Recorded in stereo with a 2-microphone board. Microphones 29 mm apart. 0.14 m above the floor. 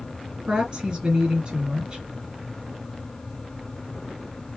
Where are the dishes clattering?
No dishes clattering in this recording.